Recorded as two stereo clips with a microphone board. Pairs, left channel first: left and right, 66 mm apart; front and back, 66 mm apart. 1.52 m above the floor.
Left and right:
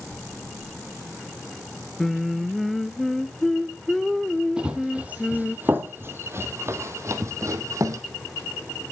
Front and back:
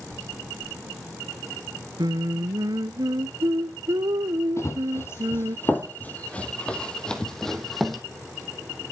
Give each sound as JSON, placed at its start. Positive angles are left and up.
{"t": 2.0, "sound": "singing", "azimuth_deg": 175, "distance_m": 0.8}
{"t": 4.6, "sound": "running footsteps", "azimuth_deg": -20, "distance_m": 2.0}